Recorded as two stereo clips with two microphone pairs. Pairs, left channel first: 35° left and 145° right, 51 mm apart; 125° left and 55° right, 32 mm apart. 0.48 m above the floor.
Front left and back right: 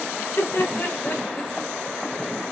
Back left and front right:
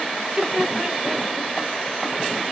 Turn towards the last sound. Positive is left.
turn(degrees=15)